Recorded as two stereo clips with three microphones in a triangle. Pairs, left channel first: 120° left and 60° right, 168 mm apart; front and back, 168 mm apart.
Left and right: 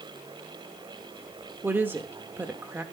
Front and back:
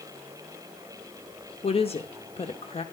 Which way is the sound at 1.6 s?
10° left.